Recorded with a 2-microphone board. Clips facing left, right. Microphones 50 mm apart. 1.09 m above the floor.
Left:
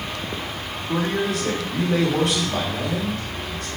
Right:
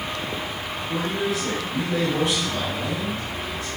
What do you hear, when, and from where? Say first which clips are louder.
0.9 s a man speaking: left 3 dB; 70° left (ahead or behind), 2.5 m